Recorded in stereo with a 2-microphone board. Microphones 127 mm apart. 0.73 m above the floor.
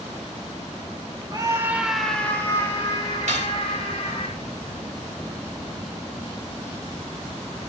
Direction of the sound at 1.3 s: 35° right (ahead or behind).